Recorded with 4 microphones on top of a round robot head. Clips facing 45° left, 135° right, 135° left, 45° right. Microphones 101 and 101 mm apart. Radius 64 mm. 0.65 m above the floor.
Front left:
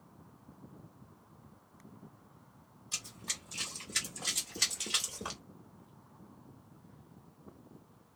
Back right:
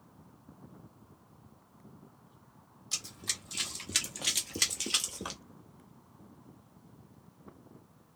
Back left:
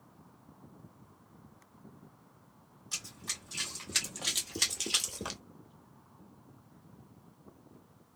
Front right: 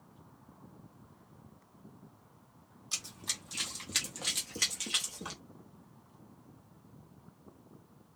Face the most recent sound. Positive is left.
turn(degrees=145)